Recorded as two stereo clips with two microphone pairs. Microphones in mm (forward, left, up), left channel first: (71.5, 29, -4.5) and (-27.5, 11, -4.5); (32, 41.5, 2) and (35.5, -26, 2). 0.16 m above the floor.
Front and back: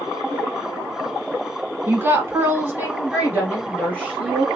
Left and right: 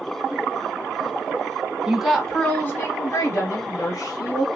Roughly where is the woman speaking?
Behind right.